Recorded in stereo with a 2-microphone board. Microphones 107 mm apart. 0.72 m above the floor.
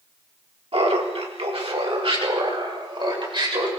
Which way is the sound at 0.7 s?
60° right (ahead or behind).